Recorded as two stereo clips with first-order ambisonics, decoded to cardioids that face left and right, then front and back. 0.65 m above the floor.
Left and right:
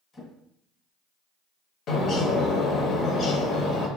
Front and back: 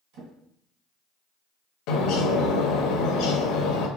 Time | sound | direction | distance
0.1 | a drawer | 155° left | 2 m
1.9 | a bird | 30° left | 0.9 m